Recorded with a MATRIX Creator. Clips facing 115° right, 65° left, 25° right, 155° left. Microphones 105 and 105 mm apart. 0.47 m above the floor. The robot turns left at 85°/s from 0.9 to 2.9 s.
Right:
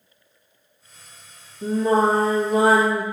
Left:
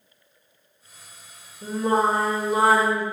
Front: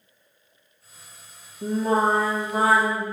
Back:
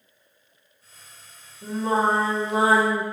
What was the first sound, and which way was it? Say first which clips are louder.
Singing: right 3 dB, front 1 dB; 45° right.